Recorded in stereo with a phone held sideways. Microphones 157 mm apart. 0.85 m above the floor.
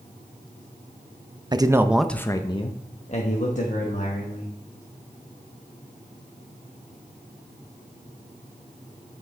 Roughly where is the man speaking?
Right.